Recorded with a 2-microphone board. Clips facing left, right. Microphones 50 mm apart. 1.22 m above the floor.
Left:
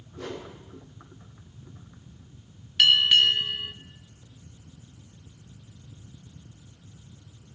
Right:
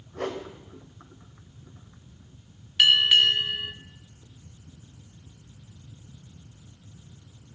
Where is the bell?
10° right (ahead or behind), 1.1 m.